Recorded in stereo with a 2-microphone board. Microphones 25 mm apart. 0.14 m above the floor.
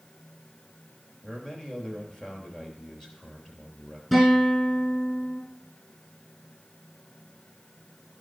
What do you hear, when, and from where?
1.2 s a man speaking: 20° left (ahead or behind), 3 m
4.1 s a guitar: 10° left (ahead or behind), 5 m